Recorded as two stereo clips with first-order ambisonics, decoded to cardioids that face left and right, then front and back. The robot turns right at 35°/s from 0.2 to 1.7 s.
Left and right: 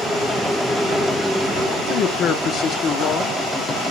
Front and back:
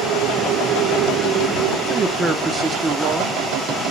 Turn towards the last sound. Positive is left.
turn(degrees=115)